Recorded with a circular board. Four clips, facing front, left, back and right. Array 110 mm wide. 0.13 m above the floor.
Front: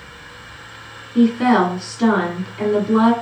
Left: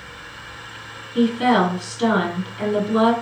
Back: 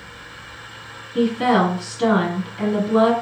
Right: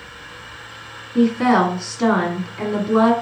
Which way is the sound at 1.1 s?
65° right.